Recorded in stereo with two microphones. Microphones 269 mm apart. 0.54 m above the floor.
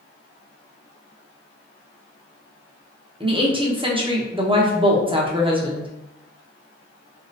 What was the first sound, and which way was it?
A woman speaking, 20° right (ahead or behind).